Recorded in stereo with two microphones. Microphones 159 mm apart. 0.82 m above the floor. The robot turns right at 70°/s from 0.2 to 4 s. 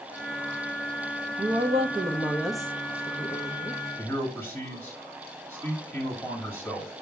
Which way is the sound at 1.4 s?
80° right.